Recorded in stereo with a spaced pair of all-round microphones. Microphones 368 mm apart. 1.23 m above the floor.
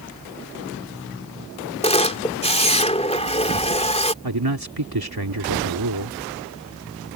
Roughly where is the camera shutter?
Centre.